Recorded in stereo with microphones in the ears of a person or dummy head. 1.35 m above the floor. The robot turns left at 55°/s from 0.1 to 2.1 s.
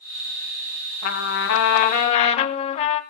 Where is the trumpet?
100° left, 2.5 m; by 3.0 s 40° left, 2.5 m.